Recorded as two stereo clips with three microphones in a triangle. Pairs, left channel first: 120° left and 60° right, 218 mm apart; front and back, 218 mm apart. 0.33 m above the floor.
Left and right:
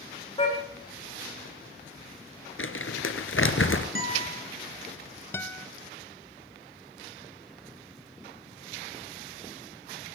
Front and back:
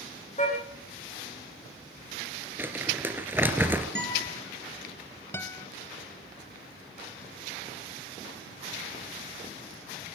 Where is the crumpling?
100° left, 2.5 m.